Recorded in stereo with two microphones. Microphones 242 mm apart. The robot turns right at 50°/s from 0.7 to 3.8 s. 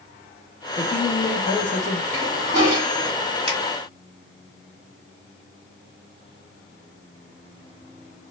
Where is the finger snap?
20° right (ahead or behind), 1.4 m; by 3.6 s 25° right (ahead or behind), 1.4 m.